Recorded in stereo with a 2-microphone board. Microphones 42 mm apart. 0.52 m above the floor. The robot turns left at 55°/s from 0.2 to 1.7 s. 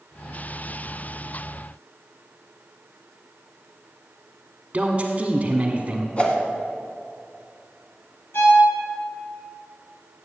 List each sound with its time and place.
4.7 s a man speaking: 25° right (ahead or behind), 1.3 m
6.2 s a whoosh: 30° left (ahead or behind), 1.5 m
8.3 s a violin: 80° left, 4.5 m